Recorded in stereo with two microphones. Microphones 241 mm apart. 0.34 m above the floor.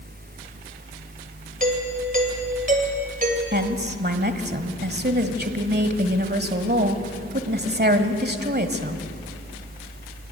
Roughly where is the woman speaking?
Right.